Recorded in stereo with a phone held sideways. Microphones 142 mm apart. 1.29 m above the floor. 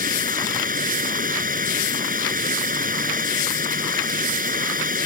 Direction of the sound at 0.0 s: 75° right (ahead or behind).